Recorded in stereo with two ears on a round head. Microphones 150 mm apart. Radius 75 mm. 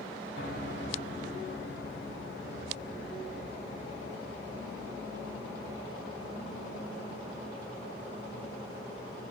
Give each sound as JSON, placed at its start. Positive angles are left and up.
{"t": 0.4, "sound": "a piano", "side_deg": 65, "distance_m": 2.5}